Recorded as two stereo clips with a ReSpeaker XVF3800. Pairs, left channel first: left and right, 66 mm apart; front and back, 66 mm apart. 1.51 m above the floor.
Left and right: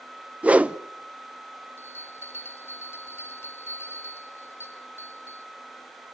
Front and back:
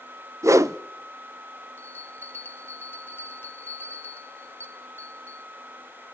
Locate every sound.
0.4 s a whoosh: 155° right, 0.7 m
1.8 s a bell: 50° left, 1.2 m